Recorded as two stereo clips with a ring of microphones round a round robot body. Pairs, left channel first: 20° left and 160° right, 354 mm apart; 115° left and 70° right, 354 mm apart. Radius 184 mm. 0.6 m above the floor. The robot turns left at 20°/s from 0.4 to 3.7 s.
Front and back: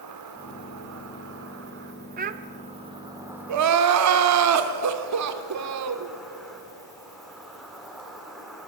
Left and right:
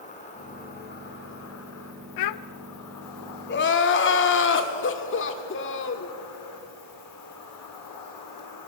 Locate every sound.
0.0 s an insect: straight behind, 3 m; by 8.7 s 115° left, 3 m
2.2 s a child speaking: 135° left, 0.5 m; by 2.4 s 130° left, 0.5 m
3.5 s crying: 170° left, 1.5 m; by 6.1 s 165° left, 1.5 m